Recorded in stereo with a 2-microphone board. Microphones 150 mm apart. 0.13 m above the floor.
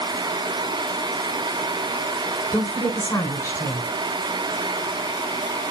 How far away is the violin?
No violin in this recording.